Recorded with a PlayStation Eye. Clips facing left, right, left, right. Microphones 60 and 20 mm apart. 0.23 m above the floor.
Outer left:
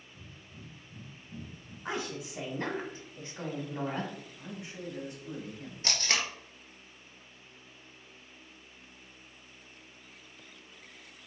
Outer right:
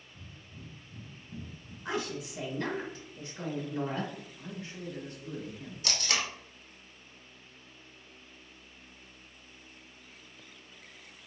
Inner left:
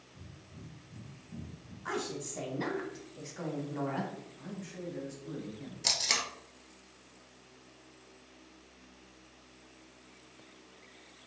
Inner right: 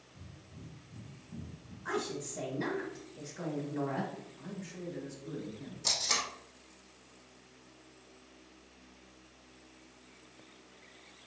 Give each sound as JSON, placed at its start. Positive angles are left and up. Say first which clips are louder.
{"t": 0.1, "sound": "breathing", "louder": "outer right 1 dB, even", "side_deg": 5, "distance_m": 1.7}
{"t": 1.9, "sound": "a woman speaking", "louder": "outer right 1 dB, inner right 1 dB", "side_deg": 30, "distance_m": 1.5}
{"t": 4.4, "sound": "a man speaking", "louder": "even, inner left 1 dB", "side_deg": 15, "distance_m": 1.1}
{"t": 5.8, "sound": "tape being pulled", "louder": "outer left 1 dB, inner left 2 dB", "side_deg": 35, "distance_m": 1.1}